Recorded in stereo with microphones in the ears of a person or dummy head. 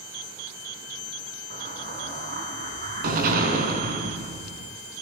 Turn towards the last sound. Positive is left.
turn(degrees=-55)  # may be behind; listen again after turning